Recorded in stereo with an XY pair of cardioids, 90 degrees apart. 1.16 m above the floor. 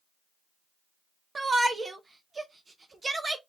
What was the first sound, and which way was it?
A shout, 35° right.